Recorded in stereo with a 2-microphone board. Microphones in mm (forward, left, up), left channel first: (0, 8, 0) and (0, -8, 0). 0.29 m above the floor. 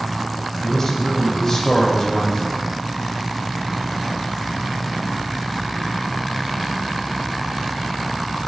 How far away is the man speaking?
About 1.3 m.